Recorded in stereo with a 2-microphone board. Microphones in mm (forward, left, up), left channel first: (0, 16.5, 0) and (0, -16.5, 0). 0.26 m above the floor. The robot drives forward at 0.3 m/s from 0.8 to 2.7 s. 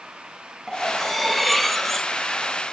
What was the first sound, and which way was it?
Cutlery clinking, 5° left (ahead or behind).